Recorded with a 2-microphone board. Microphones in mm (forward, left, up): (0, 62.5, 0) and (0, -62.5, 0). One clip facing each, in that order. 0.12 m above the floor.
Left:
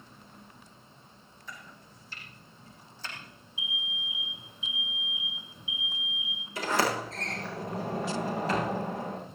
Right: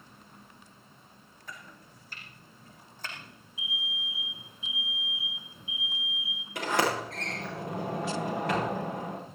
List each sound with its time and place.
1.5 s chopping: 50° right (ahead or behind), 6 m
3.6 s an alarm: 30° right (ahead or behind), 8 m
6.5 s a sliding door: 60° right (ahead or behind), 9.5 m